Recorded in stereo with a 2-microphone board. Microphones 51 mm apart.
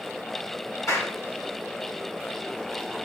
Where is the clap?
75° left (ahead or behind), 3 m.